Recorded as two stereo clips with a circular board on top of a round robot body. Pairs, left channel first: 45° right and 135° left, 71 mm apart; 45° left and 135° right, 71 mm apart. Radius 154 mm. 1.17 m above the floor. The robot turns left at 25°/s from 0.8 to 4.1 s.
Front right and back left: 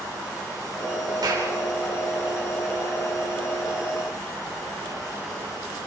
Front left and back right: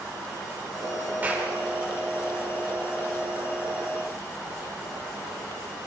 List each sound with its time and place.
1.2 s a clap: 160° left, 4.5 m; by 1.5 s 150° left, 4.5 m